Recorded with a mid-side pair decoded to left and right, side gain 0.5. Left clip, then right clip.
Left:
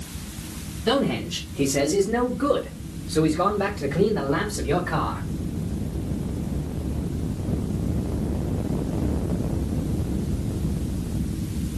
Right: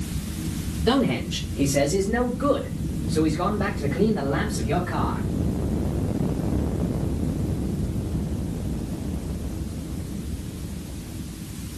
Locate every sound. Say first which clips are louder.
0.9 s a man speaking: even; 5° left, 1.7 m; by 5.2 s 50° left, 3 m